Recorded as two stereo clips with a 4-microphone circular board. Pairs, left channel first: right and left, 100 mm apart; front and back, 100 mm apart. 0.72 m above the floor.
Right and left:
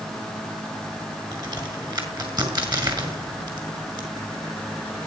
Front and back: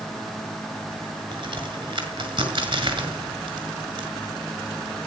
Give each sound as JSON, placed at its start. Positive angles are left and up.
{"t": 1.3, "sound": "a crack", "azimuth_deg": 140, "distance_m": 6.0}